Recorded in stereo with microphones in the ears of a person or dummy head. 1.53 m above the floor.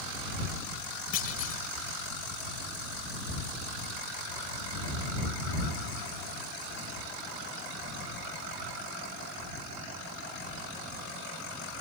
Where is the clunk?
40° left (ahead or behind).